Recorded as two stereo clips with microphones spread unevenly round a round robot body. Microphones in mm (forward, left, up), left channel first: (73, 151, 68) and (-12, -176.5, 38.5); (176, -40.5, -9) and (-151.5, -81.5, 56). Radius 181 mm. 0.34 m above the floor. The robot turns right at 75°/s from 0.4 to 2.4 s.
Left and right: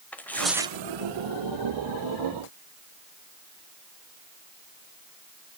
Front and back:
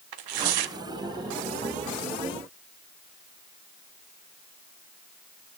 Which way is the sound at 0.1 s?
165° left.